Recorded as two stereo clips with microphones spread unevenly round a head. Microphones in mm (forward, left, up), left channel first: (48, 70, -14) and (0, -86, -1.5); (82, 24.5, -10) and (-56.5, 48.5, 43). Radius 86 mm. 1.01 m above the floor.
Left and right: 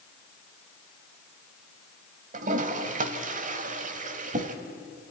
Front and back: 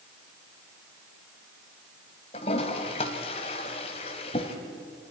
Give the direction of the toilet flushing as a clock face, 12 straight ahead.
3 o'clock.